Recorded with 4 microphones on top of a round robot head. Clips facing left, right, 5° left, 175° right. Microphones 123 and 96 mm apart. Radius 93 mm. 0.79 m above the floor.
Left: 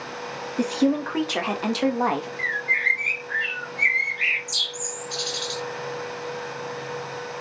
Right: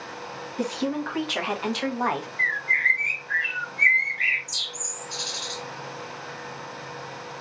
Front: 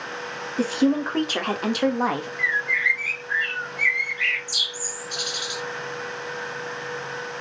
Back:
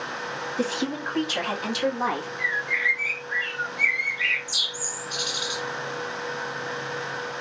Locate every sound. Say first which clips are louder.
0.6 s a woman speaking: left 6 dB, front 8 dB; 50° left, 1.9 m; by 2.3 s 25° left, 1.3 m
2.4 s a bird: left 1 dB, front 2 dB; 25° left, 1.8 m